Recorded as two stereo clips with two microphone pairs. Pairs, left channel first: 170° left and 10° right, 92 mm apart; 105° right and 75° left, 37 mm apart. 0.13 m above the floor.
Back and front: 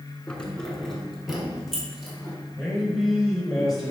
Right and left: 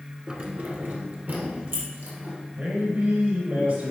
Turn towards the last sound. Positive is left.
turn(degrees=85)